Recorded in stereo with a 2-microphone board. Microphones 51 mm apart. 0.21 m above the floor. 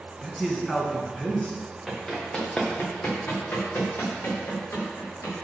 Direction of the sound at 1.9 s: 5° left (ahead or behind).